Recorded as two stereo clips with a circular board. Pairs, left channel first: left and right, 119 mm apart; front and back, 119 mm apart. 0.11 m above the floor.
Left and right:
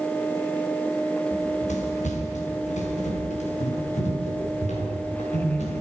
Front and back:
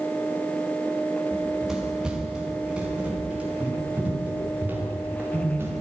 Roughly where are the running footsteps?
Left.